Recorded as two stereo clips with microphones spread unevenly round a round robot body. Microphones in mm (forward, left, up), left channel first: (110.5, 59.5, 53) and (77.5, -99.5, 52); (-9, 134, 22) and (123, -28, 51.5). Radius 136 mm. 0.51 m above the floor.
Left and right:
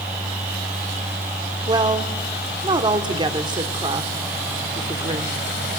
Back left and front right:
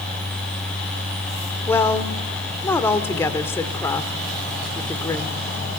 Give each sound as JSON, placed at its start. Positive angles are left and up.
{"t": 1.7, "sound": "a woman speaking", "azimuth_deg": -160, "distance_m": 1.5}